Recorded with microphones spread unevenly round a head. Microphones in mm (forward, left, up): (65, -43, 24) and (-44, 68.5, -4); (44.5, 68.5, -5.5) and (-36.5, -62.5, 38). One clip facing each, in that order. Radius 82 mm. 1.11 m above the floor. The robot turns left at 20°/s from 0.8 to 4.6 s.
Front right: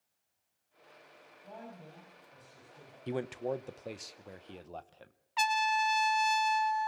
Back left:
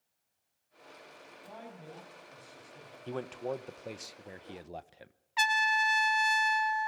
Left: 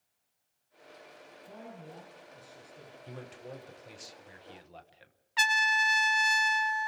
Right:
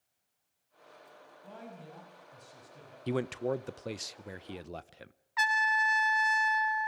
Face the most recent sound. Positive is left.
turn(degrees=60)